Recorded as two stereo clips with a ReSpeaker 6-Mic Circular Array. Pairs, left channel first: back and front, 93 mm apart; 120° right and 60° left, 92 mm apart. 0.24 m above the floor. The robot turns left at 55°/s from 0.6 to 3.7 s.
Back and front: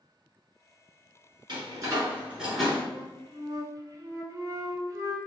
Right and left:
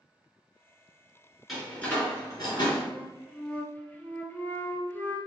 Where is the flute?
10° right, 0.8 m; by 5.2 s 50° right, 0.8 m.